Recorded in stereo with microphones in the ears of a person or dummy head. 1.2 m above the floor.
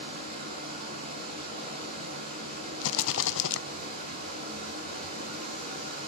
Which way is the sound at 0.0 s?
55° right (ahead or behind).